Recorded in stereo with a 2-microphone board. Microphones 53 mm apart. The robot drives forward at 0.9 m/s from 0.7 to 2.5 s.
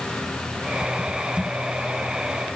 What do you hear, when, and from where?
Only background noise.